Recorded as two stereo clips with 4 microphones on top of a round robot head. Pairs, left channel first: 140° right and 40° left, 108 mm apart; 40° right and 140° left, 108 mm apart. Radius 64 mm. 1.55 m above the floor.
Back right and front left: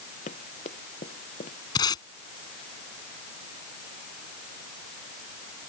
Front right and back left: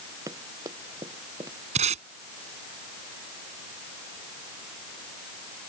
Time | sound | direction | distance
0.3 | running footsteps | 160° right | ?
1.8 | tape being pulled | 165° left | ?